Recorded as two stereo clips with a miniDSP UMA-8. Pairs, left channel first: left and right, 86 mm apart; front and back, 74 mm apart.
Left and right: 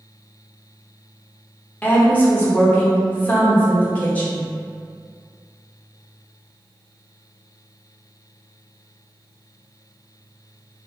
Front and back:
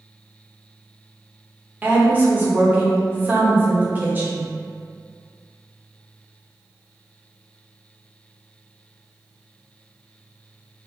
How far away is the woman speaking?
About 0.8 m.